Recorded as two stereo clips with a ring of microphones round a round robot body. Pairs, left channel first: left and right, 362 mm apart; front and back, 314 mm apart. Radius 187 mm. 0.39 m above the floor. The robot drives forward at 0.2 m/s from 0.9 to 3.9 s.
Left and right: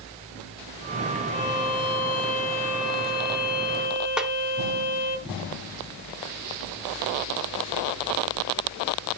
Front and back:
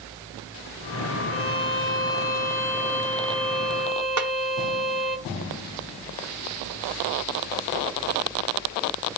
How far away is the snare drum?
About 1.0 m.